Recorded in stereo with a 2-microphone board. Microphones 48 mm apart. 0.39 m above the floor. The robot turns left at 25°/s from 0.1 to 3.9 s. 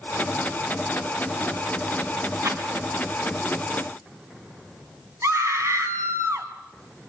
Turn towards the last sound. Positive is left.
turn(degrees=-70)  # may be behind; listen again after turning